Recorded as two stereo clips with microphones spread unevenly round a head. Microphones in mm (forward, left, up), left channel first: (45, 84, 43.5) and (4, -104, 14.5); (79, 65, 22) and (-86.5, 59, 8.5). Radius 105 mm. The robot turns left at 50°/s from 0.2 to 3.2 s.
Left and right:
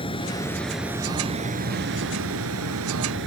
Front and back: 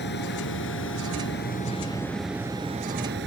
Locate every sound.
0.0 s running water: 15° left; by 3.3 s 135° right